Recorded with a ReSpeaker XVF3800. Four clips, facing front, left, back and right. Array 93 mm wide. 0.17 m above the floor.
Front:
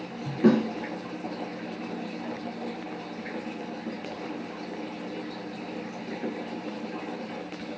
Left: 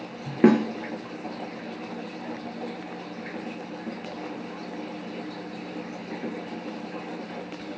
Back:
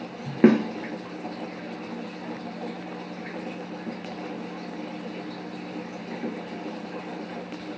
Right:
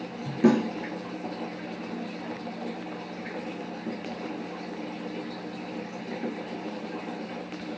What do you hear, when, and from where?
0.4 s a snare drum: 145° left, 0.6 m